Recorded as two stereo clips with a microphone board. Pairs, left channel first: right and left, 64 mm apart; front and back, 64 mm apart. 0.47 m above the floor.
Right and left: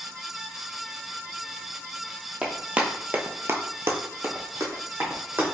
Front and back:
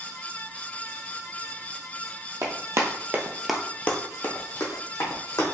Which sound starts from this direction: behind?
Running footsteps, at 2.4 s.